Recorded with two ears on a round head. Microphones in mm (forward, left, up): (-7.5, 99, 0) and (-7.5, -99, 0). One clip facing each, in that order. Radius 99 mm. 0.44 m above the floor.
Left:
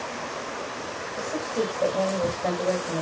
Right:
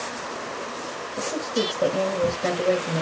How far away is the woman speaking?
About 2 m.